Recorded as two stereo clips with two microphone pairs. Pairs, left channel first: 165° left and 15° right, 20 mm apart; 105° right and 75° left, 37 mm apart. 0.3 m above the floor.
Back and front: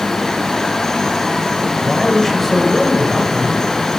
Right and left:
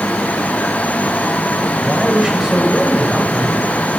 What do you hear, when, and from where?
1.8 s a woman speaking: 115° left, 1.5 m